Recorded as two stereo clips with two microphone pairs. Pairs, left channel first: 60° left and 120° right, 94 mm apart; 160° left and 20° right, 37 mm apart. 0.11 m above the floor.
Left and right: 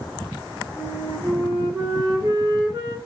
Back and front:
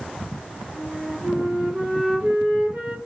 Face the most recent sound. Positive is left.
turn(degrees=-75)